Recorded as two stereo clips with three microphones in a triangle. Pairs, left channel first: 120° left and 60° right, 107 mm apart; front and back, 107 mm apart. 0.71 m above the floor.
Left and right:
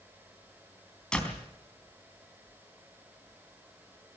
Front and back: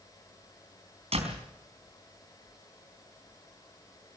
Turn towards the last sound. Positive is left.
turn(degrees=-160)